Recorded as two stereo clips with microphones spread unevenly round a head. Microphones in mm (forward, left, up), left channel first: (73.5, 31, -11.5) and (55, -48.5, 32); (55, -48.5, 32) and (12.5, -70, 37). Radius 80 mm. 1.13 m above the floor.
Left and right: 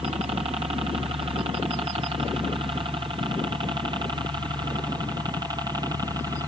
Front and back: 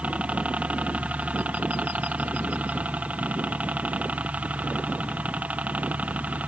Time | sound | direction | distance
0.0 | a helicopter | 110° right | ?